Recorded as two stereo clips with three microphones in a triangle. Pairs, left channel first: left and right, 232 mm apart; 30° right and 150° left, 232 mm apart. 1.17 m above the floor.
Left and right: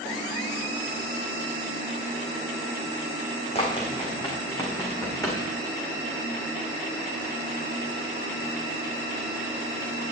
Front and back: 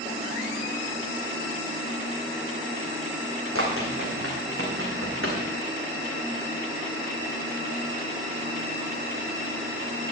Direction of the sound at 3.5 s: 150° left.